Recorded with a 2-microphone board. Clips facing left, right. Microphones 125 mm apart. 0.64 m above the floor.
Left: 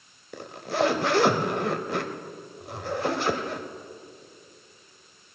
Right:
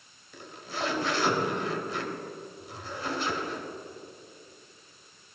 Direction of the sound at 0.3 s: 65° left (ahead or behind).